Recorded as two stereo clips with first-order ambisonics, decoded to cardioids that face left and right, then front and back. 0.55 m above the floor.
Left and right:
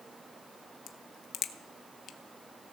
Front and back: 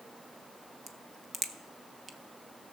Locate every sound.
0.9 s a crack: 125° left, 0.6 m